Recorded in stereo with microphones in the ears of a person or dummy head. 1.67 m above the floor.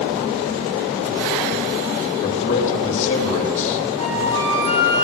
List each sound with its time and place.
2.2 s a man speaking: 40° left (ahead or behind), 3.5 m
4.0 s a flute: 80° right, 6 m